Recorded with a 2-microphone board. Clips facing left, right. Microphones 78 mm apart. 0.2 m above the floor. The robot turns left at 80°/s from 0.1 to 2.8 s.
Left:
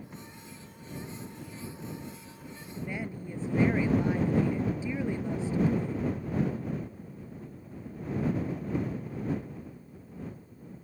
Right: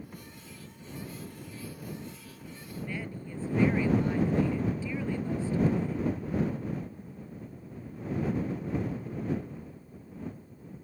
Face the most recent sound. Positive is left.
turn(degrees=20)  # may be behind; listen again after turning